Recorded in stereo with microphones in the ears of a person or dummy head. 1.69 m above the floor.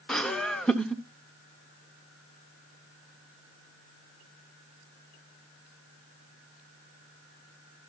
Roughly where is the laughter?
Centre.